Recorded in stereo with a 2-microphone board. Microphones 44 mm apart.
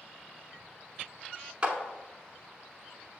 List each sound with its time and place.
1.6 s a clap: 30° right (ahead or behind), 0.9 m